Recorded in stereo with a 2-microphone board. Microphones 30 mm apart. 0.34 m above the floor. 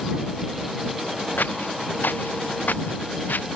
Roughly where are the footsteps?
Left.